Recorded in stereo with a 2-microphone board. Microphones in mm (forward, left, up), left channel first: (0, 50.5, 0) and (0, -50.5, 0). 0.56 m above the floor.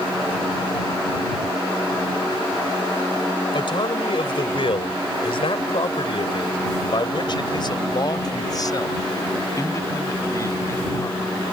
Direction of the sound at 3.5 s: 55° left (ahead or behind).